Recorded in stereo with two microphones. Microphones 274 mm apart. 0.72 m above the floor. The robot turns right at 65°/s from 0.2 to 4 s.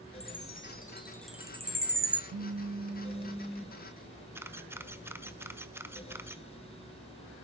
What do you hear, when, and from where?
0.2 s a chime: 70° left (ahead or behind), 1.8 m; by 2.2 s 60° right (ahead or behind), 1.8 m
2.3 s a phone buzzing: 80° right, 0.7 m; by 3.8 s 15° left, 0.7 m
4.3 s a camera shutter: 10° right (ahead or behind), 1.3 m